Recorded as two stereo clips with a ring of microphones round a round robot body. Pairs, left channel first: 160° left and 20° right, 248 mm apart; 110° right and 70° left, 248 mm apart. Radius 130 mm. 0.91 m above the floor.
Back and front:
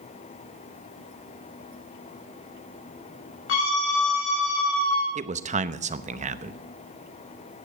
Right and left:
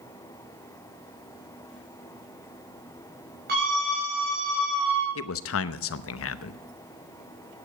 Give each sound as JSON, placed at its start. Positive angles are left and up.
{"t": 3.5, "sound": "a scream", "azimuth_deg": 120, "distance_m": 5.5}
{"t": 5.2, "sound": "a man speaking", "azimuth_deg": -85, "distance_m": 0.8}